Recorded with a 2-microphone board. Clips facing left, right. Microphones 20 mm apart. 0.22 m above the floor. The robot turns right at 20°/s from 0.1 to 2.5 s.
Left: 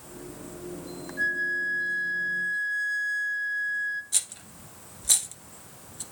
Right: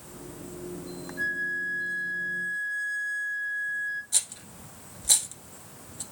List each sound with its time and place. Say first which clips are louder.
1.2 s a flute: left 3 dB; 20° left (ahead or behind), 1.2 m
4.1 s a rattle: even; 5° left (ahead or behind), 1.2 m